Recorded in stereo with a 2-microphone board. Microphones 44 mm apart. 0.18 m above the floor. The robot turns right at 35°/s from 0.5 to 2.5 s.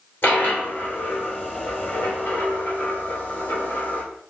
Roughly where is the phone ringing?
No phone ringing in this recording.